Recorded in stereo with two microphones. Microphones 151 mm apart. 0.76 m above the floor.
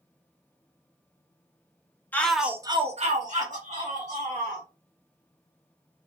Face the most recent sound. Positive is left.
turn(degrees=-50)  # may be behind; listen again after turning